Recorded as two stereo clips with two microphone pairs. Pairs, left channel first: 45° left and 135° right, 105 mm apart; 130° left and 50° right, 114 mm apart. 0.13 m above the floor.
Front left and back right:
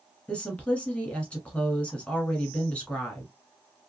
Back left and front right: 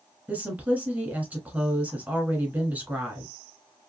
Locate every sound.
0.3 s a woman speaking: 10° right, 1.3 m